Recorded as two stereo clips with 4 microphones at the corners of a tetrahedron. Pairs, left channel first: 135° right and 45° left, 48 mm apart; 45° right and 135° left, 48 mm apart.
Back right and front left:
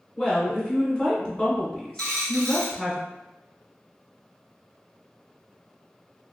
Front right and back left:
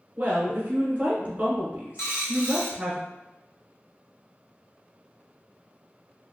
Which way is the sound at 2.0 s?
60° right.